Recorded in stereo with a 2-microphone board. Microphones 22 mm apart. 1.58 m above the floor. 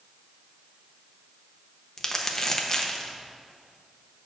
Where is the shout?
No shout in this recording.